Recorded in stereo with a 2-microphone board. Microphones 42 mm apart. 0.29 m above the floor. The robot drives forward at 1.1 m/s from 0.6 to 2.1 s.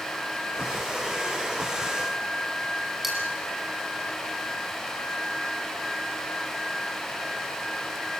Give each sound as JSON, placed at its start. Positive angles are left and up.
{"t": 3.0, "sound": "cutlery clinking", "side_deg": -5, "distance_m": 5.5}